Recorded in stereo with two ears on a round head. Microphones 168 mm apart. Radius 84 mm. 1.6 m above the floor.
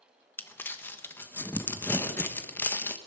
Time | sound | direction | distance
0.4 | crumpling | 10° left (ahead or behind) | 1.1 m